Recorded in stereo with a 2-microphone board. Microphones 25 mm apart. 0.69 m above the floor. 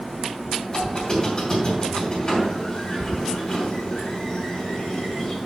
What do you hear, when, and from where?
0.7 s a squeak: 35° left (ahead or behind), 2.5 m